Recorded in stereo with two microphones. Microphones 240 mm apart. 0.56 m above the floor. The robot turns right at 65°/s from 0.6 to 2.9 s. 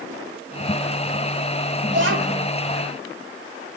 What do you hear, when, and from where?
1.9 s a child speaking: 135° right, 2 m; by 2.5 s 95° right, 2 m